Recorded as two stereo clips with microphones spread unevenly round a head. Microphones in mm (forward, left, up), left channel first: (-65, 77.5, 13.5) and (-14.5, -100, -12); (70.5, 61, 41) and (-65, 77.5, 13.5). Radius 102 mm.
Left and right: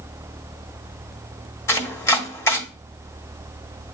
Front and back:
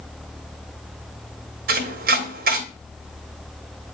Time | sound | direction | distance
1.7 | chopping | 175° left | 1.5 m